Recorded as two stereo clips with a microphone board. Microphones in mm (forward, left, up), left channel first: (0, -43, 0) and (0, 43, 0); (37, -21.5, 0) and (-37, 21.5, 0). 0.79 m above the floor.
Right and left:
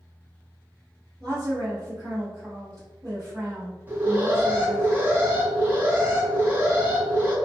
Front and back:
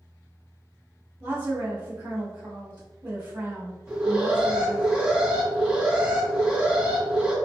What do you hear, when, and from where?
1.2 s a woman speaking: 125° left, 1.1 m
3.9 s an alarm: 95° left, 0.8 m